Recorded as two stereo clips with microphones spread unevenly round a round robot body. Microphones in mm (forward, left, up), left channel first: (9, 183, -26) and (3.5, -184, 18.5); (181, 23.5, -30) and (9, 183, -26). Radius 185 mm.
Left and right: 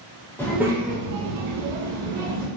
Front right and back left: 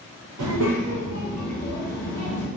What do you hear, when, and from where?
0.4 s a child speaking: 170° left, 0.6 m; by 2.5 s 75° right, 0.9 m